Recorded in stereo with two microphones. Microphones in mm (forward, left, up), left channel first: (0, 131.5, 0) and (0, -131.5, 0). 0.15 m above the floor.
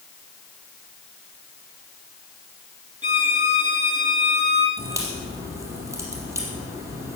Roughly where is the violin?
Right.